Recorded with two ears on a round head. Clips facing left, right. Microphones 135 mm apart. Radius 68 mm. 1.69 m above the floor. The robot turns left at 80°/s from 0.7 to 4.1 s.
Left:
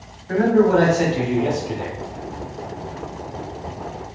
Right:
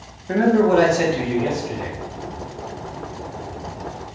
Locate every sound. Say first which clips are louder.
0.3 s a man speaking: even; 145° right, 0.8 m; by 2.0 s 115° left, 0.8 m